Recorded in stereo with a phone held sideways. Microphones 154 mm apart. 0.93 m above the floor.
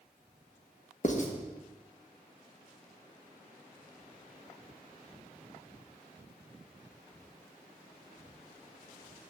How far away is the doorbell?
I don't hear a doorbell.